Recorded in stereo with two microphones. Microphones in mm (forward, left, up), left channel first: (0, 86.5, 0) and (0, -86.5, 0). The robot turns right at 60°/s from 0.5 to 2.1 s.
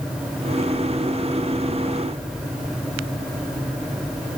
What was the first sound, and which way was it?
Only background noise.